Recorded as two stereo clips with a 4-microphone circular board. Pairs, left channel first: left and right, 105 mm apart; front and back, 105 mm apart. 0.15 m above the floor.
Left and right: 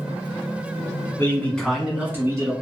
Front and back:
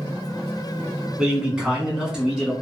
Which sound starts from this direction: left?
A man speaking, at 1.2 s.